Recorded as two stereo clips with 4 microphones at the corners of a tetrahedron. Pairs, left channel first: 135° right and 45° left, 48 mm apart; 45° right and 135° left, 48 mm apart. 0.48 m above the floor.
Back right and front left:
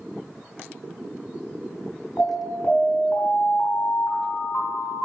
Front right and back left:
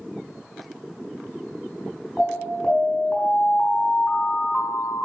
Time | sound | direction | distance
2.2 | an alarm | 110° right | 4.5 m